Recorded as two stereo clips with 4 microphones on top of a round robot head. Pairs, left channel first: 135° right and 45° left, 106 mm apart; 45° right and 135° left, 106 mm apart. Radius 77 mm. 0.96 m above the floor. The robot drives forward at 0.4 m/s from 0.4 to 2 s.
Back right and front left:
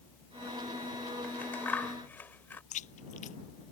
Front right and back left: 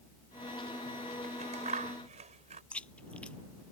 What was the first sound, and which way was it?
Scissors, 150° left.